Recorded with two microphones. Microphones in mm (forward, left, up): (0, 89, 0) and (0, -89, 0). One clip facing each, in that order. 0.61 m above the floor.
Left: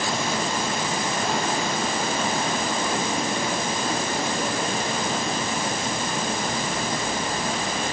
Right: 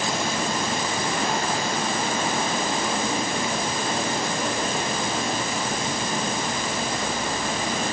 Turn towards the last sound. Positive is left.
No sound to turn to.